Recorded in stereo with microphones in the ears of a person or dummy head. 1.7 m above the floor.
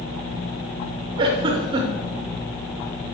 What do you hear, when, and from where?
1.2 s a giggle: 30° right (ahead or behind), 0.7 m